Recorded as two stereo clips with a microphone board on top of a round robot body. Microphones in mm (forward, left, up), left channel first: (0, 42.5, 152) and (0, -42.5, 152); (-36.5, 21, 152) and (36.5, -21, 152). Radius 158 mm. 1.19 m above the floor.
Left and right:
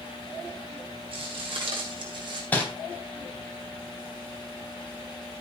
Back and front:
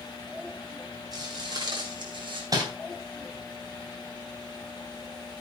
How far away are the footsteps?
About 4.5 m.